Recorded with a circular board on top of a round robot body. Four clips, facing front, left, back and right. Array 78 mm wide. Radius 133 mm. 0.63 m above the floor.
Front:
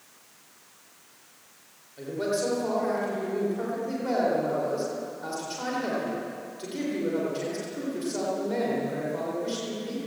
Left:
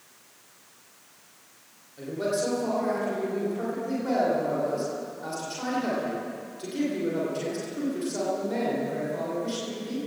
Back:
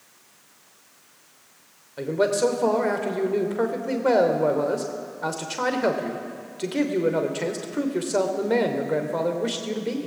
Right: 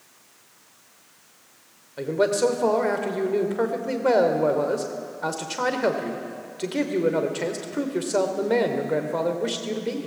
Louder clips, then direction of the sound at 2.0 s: Right 7 dB, back 7 dB; 135° right.